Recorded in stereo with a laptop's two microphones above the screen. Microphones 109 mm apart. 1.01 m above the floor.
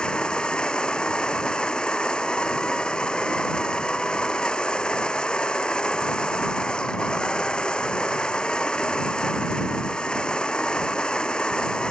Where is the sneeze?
I don't hear a sneeze.